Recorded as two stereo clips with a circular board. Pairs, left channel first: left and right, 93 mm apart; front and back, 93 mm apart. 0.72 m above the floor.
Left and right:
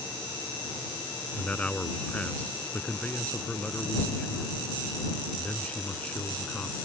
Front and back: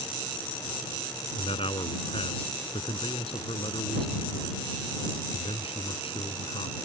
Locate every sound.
1.4 s a man speaking: 15° left